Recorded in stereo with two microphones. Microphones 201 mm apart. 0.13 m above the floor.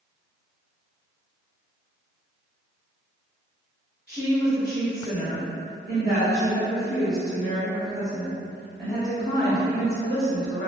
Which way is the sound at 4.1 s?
45° right (ahead or behind).